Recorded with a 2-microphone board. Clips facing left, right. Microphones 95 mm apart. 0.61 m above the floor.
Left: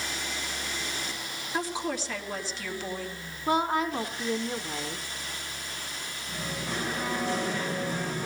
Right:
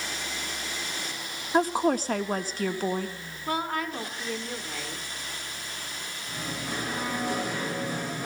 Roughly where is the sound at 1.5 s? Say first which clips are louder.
Right 8 dB; right.